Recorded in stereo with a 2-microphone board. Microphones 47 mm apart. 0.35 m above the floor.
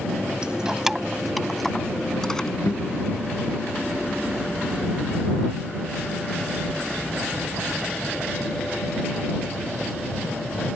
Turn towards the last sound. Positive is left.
turn(degrees=60)  # may be behind; listen again after turning